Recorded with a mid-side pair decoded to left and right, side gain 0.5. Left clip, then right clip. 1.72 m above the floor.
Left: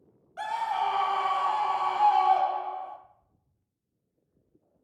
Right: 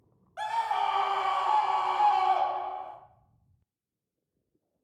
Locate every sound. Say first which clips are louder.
0.4 s a scream: even; 10° right, 0.9 m